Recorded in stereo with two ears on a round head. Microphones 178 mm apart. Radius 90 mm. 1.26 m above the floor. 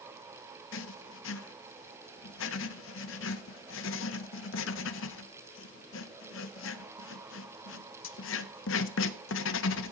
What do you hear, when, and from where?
0.7 s writing: 70° left (ahead or behind), 0.7 m